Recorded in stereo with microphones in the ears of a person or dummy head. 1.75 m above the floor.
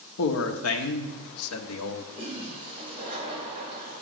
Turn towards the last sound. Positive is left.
turn(degrees=-45)  # may be behind; listen again after turning